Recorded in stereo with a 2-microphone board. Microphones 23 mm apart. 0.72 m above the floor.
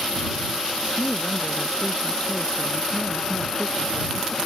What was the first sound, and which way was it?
A woman speaking, 40° left (ahead or behind).